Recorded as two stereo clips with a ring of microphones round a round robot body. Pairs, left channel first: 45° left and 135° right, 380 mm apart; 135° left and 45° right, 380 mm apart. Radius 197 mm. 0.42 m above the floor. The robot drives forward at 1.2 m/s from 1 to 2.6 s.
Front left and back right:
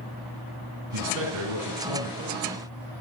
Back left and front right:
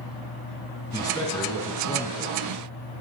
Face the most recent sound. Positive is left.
turn(degrees=-155)